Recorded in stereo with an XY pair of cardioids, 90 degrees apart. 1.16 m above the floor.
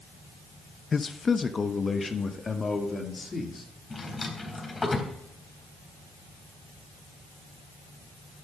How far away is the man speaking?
About 0.7 m.